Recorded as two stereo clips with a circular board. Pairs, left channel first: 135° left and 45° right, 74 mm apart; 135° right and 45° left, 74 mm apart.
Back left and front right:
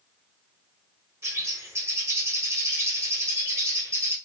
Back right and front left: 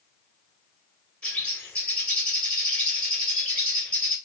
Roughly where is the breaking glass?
I don't hear breaking glass.